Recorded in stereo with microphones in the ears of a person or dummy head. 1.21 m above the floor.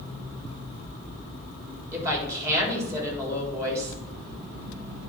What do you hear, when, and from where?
1.9 s a woman speaking: 5° right (ahead or behind), 3.5 m